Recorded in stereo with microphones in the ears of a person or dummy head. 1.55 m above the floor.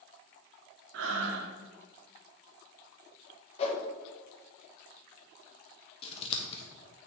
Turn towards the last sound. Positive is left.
turn(degrees=40)  # may be behind; listen again after turning